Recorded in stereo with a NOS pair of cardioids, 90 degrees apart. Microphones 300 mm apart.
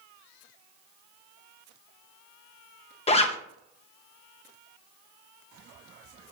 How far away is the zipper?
About 0.8 m.